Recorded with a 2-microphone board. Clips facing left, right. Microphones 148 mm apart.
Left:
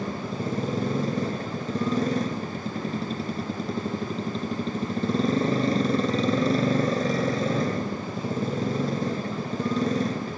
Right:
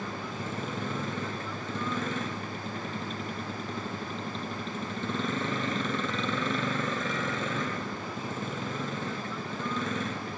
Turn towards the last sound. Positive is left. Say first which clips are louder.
# left 6 dB
turn(degrees=35)  # may be behind; listen again after turning